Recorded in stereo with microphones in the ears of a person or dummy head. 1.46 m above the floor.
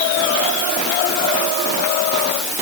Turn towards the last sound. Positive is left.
No sound to turn to.